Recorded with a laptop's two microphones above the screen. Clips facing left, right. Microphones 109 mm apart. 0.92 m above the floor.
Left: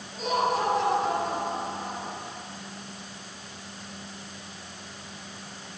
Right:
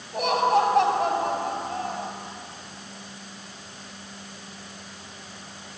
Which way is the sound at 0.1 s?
65° right (ahead or behind).